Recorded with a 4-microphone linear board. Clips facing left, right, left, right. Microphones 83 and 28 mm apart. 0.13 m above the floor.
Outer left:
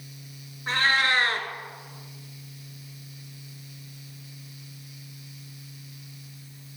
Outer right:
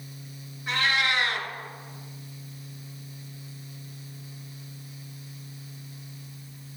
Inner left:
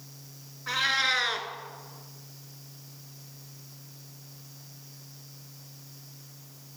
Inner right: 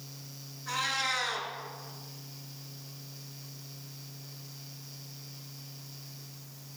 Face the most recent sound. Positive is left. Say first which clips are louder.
# outer left 2 dB, inner left 5 dB
turn(degrees=40)  # may be behind; listen again after turning